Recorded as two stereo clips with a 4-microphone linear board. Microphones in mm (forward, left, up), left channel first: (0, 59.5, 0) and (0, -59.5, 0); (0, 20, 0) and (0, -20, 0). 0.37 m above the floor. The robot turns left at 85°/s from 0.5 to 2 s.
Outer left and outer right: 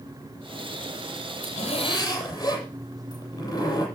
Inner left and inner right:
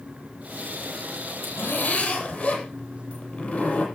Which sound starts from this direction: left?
A zipper, at 1.4 s.